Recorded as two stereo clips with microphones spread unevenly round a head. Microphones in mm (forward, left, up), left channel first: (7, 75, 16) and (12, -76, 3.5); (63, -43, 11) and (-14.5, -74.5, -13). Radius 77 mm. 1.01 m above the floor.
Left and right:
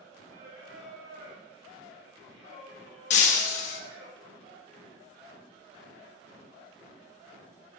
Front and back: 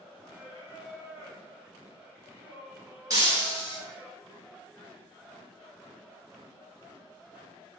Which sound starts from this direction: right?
Singing, at 0.3 s.